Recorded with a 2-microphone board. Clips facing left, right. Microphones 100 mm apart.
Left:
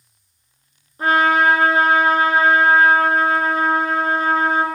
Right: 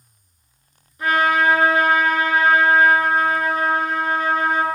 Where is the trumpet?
35° left (ahead or behind), 1.0 m.